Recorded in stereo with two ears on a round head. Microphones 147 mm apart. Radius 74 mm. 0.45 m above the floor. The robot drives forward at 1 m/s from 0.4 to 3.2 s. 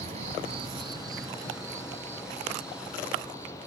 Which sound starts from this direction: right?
An insect, at 0.0 s.